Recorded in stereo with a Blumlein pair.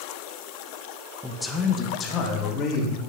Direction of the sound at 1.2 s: Straight ahead.